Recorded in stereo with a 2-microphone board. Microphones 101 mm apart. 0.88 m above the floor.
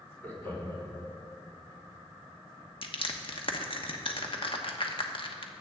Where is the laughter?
25° left (ahead or behind), 3.5 m.